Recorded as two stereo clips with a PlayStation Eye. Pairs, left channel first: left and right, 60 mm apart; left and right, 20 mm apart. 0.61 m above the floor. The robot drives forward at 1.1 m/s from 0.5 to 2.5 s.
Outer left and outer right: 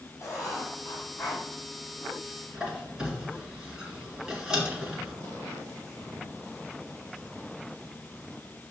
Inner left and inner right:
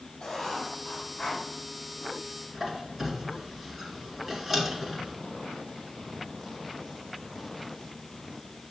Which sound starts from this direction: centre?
A squeak, at 2.5 s.